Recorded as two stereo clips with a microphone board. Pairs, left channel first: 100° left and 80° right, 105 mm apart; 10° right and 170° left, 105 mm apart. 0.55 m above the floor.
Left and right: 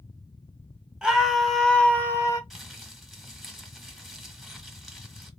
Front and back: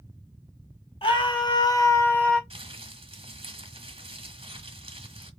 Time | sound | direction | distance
1.0 | a scream | straight ahead | 1.9 m
2.5 | crumpling | 170° right | 1.5 m